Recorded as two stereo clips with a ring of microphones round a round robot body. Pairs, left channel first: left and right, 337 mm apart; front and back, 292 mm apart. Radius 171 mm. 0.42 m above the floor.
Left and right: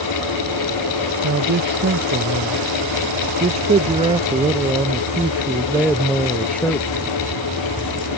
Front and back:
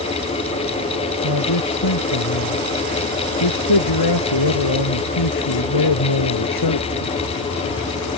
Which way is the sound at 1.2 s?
30° right.